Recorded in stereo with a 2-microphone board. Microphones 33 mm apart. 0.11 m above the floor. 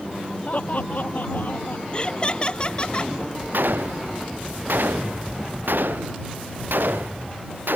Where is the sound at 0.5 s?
50° left (ahead or behind); by 1.8 s 65° left (ahead or behind).